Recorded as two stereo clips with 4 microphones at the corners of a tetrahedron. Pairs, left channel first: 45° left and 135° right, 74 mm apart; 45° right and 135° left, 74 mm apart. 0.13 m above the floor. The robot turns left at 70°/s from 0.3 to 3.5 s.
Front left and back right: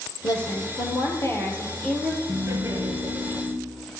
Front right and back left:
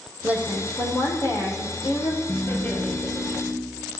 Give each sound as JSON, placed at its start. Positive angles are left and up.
{"t": 0.2, "sound": "a woman speaking", "azimuth_deg": 65, "distance_m": 3.5}
{"t": 2.3, "sound": "laughter", "azimuth_deg": -80, "distance_m": 3.0}